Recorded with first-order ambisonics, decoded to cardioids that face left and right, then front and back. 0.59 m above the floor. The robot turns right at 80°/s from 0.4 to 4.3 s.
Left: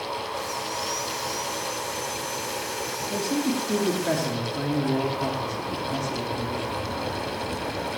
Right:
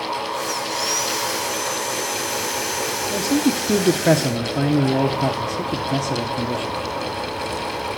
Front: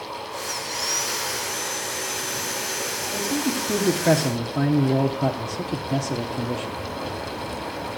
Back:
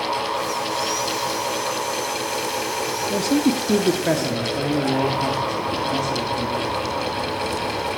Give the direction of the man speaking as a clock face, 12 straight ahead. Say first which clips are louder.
Right 6 dB, back 6 dB; 5 o'clock.